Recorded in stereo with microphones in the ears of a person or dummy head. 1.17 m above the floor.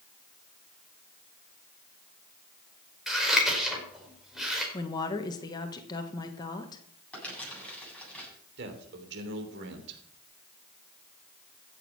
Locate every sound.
3.1 s scissors: centre (ahead or behind), 4.5 m
4.7 s a woman speaking: 25° left (ahead or behind), 1.4 m
7.1 s crumpling: 10° left (ahead or behind), 9 m
8.6 s a man speaking: 65° right (ahead or behind), 3 m